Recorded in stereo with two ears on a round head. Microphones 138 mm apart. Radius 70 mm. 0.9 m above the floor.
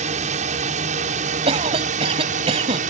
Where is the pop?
I don't hear a pop.